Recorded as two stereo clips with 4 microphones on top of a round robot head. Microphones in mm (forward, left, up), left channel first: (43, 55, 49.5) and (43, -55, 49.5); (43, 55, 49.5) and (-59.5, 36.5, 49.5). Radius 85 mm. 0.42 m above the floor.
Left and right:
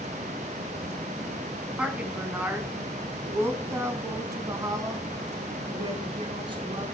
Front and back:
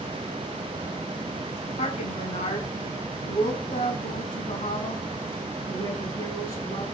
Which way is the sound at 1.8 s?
10° right.